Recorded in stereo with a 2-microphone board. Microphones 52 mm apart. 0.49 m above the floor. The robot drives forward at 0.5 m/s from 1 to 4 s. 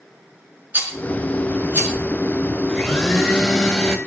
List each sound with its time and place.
0.7 s a rattle: 35° right (ahead or behind), 3.5 m; by 1.9 s 30° right (ahead or behind), 4 m
2.7 s a blender: centre (ahead or behind), 2 m